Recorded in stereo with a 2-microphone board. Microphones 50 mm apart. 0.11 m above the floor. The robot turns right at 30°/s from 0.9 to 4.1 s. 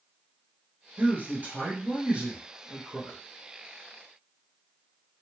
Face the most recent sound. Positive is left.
turn(degrees=25)